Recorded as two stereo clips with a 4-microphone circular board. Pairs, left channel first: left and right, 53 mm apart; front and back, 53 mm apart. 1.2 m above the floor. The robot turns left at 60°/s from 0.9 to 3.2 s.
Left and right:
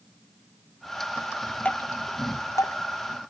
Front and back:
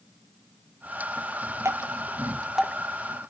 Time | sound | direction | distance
1.6 | dripping | 155° left | 0.8 m